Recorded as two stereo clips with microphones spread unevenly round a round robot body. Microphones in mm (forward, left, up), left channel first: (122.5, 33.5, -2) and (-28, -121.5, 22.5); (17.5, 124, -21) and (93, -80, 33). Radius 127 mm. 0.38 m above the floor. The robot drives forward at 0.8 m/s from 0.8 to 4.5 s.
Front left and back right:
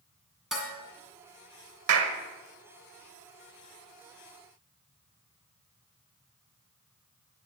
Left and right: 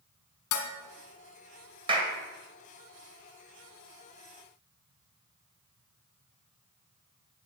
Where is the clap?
150° right, 1.3 m; by 2.2 s 155° right, 1.5 m.